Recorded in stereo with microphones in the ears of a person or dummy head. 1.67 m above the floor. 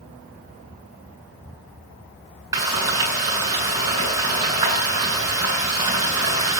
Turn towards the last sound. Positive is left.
turn(degrees=-20)  # may be behind; listen again after turning